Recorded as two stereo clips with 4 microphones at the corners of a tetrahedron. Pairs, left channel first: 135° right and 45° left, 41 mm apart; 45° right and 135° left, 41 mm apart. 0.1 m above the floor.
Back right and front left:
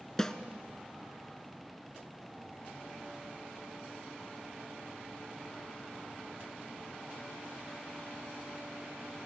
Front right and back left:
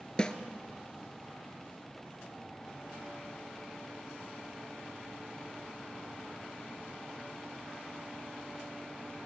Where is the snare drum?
75° right, 0.7 m.